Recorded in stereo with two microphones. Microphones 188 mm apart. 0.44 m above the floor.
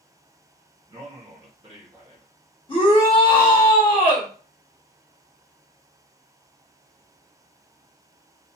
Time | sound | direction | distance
0.9 | a man speaking | 30° right (ahead or behind) | 1.1 m
2.7 | a shout | 30° left (ahead or behind) | 1.3 m